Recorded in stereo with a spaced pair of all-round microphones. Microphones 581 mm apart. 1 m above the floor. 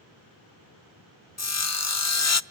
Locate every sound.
1.4 s sawing: 30° left (ahead or behind), 0.6 m